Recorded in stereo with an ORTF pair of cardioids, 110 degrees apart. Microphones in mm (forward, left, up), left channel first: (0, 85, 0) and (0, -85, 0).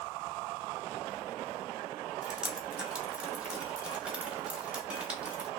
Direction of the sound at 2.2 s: 5° right.